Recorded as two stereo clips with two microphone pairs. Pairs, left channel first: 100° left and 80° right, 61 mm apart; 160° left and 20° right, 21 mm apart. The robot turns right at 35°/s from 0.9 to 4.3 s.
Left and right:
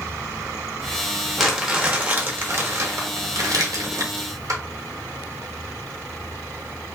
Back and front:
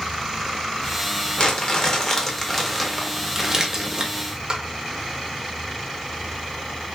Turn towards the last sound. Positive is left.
turn(degrees=-65)